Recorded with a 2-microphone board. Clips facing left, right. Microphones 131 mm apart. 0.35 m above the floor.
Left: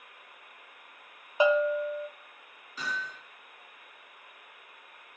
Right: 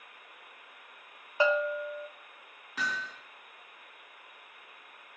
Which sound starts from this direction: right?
Hammering, at 2.8 s.